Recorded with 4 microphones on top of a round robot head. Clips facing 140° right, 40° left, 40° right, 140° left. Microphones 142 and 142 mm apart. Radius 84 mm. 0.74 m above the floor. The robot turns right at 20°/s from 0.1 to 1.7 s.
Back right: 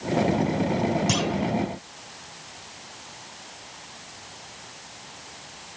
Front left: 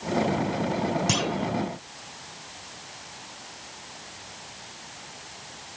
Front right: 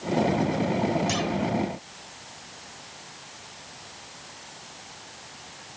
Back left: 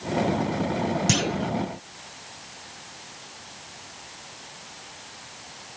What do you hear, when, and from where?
1.1 s a clunk: 125° left; by 1.5 s 135° left